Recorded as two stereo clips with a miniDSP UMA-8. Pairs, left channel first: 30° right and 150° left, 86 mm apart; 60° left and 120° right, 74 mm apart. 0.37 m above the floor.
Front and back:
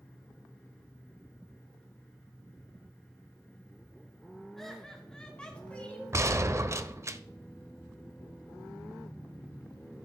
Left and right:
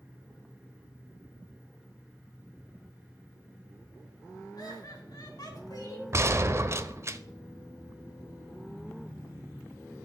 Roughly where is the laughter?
Ahead left.